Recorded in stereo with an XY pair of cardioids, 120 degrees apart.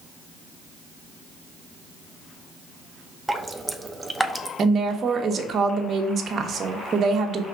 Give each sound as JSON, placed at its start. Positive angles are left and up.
{"t": 3.3, "sound": "dripping", "azimuth_deg": -10, "distance_m": 0.7}
{"t": 4.6, "sound": "a woman speaking", "azimuth_deg": -40, "distance_m": 1.2}